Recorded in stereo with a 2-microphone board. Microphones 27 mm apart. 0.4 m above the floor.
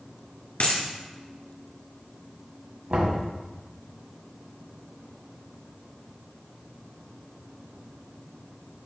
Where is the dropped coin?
65° left (ahead or behind), 1.9 m.